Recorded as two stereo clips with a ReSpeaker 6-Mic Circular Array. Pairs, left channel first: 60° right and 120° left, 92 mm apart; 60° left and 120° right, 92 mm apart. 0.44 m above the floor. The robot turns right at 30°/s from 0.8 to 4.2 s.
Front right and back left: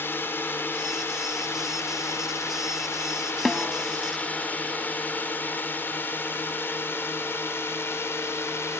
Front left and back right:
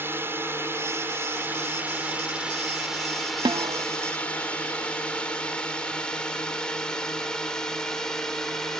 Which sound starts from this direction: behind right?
A snare drum, at 3.5 s.